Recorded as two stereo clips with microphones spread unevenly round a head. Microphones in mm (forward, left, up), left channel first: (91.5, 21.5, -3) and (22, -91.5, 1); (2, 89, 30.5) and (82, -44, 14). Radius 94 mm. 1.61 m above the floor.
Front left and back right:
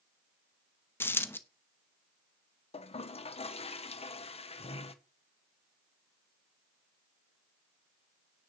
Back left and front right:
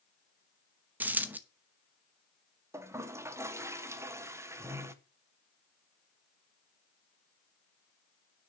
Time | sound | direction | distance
1.0 | a dropped coin | 20° left | 0.9 m
2.7 | a toilet flushing | 15° left | 1.2 m